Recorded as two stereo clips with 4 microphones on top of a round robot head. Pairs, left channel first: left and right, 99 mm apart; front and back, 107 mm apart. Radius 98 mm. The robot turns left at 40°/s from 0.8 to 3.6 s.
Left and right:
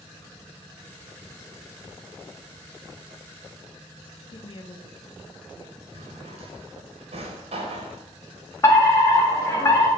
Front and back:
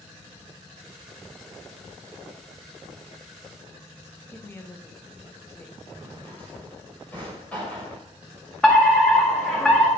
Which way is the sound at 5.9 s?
80° right.